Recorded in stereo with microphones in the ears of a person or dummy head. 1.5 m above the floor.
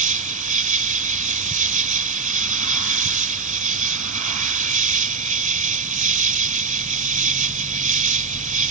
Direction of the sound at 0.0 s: 30° right (ahead or behind).